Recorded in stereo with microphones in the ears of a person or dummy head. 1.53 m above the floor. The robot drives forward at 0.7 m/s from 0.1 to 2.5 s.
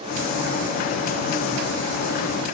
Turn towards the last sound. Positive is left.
No sound to turn to.